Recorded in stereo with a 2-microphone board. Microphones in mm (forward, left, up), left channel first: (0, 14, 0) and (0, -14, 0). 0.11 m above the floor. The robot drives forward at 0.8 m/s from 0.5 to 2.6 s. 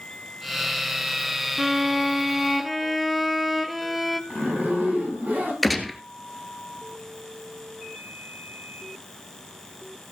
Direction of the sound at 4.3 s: 65° right (ahead or behind).